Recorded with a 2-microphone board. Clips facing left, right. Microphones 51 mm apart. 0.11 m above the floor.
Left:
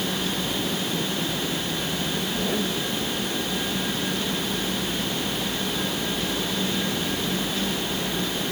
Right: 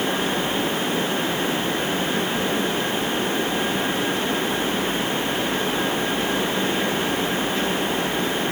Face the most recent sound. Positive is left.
No sound to turn to.